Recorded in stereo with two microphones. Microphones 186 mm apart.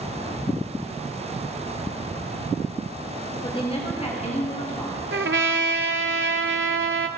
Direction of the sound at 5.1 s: 80° right.